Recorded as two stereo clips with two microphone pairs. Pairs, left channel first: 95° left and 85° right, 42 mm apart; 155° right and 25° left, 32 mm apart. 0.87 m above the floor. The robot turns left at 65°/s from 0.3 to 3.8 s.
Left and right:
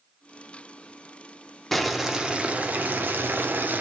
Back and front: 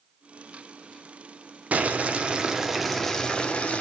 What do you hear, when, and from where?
1.7 s boiling: 15° left, 0.5 m; by 3.8 s 120° right, 0.5 m